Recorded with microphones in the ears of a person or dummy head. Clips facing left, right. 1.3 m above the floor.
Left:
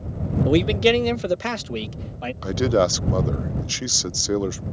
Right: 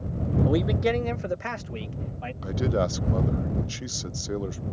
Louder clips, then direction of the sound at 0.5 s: Left 7 dB; 35° left (ahead or behind).